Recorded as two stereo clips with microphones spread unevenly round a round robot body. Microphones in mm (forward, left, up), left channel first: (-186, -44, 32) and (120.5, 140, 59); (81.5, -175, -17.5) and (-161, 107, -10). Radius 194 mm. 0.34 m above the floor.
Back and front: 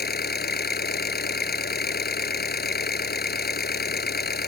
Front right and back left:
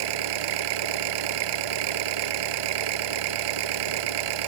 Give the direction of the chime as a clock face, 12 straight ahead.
I don't hear a chime.